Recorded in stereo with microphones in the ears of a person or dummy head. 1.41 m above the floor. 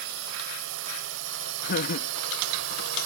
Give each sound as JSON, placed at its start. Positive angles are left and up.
{"t": 0.0, "sound": "a drone", "side_deg": -70}
{"t": 1.6, "sound": "laughter", "side_deg": 60}